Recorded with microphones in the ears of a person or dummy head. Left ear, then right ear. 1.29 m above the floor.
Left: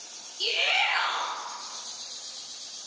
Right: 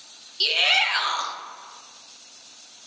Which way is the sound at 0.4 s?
30° right (ahead or behind).